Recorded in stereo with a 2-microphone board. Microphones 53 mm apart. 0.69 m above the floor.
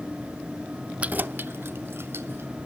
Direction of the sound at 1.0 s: 25° right (ahead or behind).